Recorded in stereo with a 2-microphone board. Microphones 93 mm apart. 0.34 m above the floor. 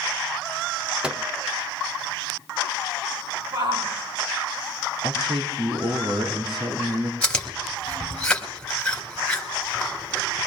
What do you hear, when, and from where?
1.0 s a microwave: 10° right (ahead or behind), 0.6 m
3.5 s a shout: 65° right (ahead or behind), 6 m
5.0 s a man speaking: 70° right (ahead or behind), 3 m
7.2 s chewing: 10° left (ahead or behind), 1.9 m